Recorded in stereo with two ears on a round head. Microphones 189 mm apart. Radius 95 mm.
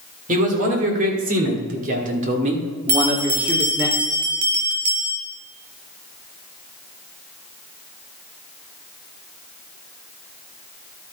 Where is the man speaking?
35° right (ahead or behind), 3 m; by 3.9 s centre (ahead or behind), 1.7 m.